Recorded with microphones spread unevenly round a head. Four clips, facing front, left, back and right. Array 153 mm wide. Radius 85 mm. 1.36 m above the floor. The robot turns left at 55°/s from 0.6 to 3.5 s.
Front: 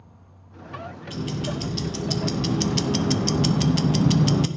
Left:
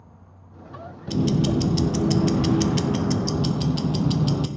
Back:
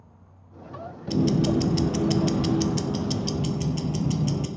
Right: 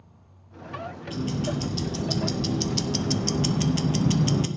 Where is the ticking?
135° left, 0.7 m; by 4.5 s 5° left, 0.7 m.